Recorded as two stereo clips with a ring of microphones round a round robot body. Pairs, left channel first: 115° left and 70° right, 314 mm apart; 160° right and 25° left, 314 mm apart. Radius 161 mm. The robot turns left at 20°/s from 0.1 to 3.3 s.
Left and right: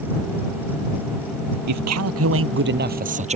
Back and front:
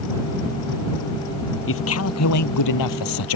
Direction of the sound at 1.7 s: 105° right.